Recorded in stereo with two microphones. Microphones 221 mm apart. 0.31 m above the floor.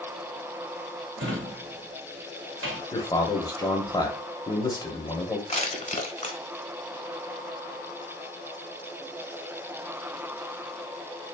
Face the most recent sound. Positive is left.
turn(degrees=35)  # may be behind; listen again after turning